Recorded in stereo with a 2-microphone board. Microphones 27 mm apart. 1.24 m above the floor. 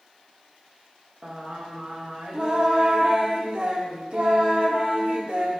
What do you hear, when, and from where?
1.2 s singing: 40° right (ahead or behind), 1.1 m